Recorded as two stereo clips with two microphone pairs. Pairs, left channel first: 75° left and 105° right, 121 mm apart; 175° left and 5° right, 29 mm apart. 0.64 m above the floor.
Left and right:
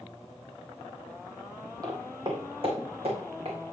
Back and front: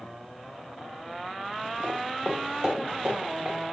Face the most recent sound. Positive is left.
turn(degrees=-70)